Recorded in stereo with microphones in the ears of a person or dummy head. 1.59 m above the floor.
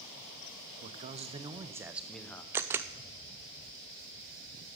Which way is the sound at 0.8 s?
40° right (ahead or behind).